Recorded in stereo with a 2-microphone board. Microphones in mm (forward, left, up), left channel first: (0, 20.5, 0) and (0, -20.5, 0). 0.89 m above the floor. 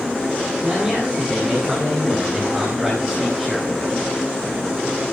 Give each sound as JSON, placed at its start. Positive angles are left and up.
{"t": 0.6, "sound": "a man speaking", "side_deg": -15, "distance_m": 10.0}